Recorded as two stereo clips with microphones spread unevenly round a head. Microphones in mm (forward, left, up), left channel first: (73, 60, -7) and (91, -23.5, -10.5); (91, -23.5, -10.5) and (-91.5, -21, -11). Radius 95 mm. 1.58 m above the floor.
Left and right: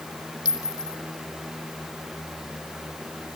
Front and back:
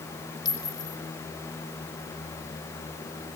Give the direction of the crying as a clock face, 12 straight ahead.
No crying in this recording.